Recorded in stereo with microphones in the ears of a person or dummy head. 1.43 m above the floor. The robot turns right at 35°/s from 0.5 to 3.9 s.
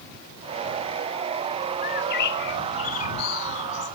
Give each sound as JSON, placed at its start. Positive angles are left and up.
{"t": 1.8, "sound": "a bird", "azimuth_deg": 45}